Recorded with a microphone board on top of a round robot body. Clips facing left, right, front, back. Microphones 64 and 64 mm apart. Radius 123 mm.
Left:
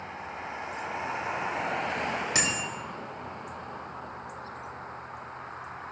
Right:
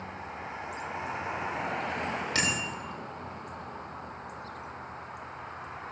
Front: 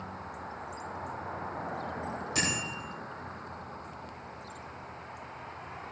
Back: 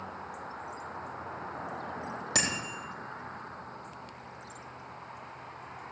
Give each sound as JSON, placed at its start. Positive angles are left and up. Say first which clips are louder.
{"t": 2.4, "sound": "a bicycle bell", "louder": "even, even", "azimuth_deg": 165, "distance_m": 3.0}